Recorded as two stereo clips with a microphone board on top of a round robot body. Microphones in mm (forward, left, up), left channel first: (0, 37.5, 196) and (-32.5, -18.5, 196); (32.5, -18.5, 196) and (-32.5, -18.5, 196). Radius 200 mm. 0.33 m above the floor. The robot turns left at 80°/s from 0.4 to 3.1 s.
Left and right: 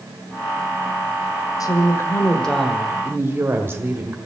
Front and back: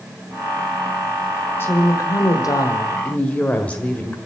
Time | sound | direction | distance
1.6 | a woman speaking | 50° left | 1.8 m